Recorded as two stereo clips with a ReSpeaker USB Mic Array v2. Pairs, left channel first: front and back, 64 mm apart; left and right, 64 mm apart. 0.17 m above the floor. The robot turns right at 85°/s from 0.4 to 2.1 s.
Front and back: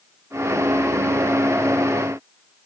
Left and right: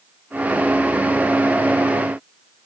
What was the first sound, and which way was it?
Only background noise.